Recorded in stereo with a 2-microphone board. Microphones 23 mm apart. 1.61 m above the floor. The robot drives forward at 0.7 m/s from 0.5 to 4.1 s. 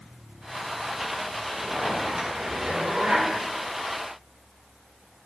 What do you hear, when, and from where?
1.5 s a zipper: 50° right (ahead or behind), 4 m; by 3.3 s 65° right (ahead or behind), 3.5 m